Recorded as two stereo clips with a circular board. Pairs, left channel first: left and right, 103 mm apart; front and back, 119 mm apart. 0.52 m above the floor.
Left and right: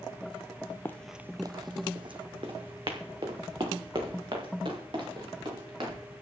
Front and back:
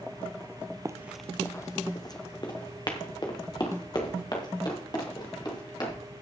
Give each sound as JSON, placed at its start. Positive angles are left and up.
{"t": 0.8, "sound": "running footsteps", "azimuth_deg": 140, "distance_m": 0.6}